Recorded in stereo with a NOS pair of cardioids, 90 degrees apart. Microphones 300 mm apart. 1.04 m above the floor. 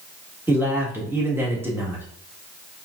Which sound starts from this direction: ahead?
A man speaking, at 0.5 s.